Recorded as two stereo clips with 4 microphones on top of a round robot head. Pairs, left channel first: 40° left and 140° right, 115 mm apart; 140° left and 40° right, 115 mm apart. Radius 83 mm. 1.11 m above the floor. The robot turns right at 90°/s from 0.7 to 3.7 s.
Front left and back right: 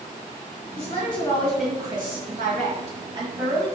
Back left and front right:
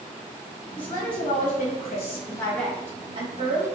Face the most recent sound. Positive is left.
turn(degrees=-40)